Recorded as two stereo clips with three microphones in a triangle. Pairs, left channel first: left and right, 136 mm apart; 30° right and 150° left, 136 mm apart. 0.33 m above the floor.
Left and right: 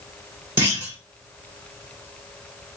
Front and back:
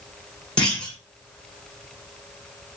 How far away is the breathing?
I don't hear breathing.